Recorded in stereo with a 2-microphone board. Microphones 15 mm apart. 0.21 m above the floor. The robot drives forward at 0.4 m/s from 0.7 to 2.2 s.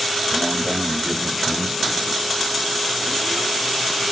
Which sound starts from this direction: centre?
A man speaking, at 0.3 s.